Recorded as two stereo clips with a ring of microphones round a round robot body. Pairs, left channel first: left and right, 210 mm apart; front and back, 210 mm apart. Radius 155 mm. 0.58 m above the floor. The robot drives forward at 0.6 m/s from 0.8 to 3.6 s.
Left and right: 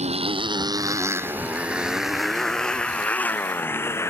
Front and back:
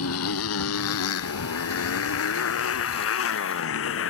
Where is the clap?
No clap in this recording.